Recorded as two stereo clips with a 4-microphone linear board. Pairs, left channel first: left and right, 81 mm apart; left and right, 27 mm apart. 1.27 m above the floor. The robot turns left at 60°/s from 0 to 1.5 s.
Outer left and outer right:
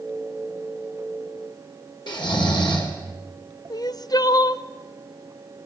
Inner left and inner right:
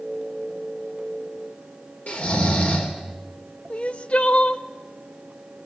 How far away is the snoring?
About 3.5 m.